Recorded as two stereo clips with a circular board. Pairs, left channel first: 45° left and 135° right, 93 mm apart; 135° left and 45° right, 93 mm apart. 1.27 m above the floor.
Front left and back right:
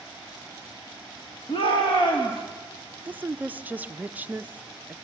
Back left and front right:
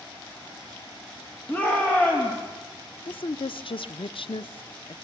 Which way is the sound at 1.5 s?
65° left.